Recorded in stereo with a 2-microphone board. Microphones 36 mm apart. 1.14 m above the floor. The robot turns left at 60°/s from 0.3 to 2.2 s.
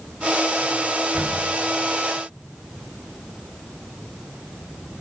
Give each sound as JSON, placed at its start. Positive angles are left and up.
{"t": 1.1, "sound": "a door slam", "side_deg": -50, "distance_m": 4.0}